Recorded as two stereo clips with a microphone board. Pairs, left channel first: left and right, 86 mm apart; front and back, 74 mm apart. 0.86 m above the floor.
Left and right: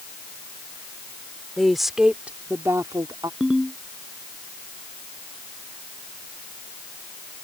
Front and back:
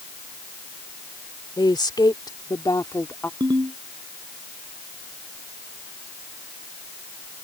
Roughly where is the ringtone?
Behind.